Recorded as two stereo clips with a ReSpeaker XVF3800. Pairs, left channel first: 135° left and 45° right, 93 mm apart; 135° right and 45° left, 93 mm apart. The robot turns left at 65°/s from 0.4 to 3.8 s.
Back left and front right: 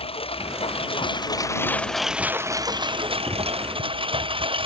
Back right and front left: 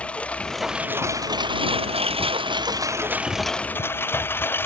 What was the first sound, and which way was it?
A lawn mower, 145° left.